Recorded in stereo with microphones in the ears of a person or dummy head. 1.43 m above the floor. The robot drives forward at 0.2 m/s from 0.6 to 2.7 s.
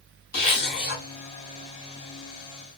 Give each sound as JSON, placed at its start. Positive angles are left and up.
{"t": 0.3, "sound": "a zipper", "side_deg": 55, "distance_m": 1.7}